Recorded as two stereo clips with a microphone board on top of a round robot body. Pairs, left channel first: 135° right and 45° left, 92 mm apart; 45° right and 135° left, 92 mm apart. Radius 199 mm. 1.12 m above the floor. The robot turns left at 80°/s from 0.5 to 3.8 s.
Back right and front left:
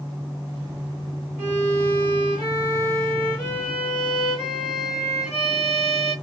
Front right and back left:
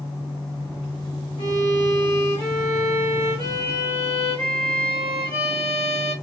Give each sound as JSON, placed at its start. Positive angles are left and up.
{"t": 1.4, "sound": "a violin", "azimuth_deg": -25, "distance_m": 1.6}